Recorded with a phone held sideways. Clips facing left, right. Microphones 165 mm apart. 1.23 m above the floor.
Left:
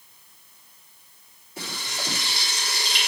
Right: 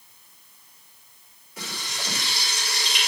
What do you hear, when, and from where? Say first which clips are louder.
1.6 s frying: left 2 dB; 30° left (ahead or behind), 3.5 m